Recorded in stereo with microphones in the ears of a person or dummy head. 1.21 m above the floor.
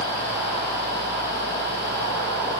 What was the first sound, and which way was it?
Only background noise.